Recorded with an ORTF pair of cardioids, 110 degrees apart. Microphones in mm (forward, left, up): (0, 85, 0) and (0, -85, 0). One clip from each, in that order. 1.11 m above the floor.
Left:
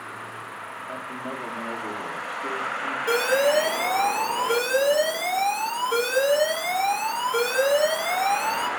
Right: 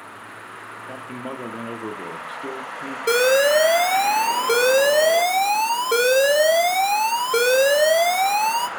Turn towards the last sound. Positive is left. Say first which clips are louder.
# right 5 dB
turn(degrees=-50)